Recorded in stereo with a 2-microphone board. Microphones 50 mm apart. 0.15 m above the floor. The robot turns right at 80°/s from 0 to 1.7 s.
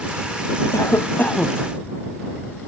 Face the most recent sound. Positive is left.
turn(degrees=180)